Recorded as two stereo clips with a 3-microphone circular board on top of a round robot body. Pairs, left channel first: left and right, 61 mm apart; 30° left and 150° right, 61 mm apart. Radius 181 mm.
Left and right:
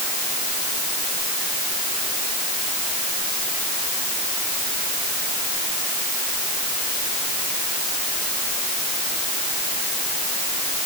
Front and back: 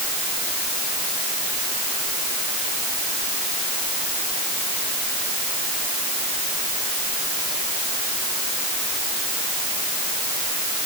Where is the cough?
No cough in this recording.